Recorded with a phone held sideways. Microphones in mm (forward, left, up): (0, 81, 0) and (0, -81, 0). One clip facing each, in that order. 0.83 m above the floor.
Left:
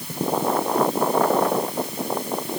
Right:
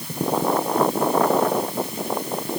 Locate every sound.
Only background noise.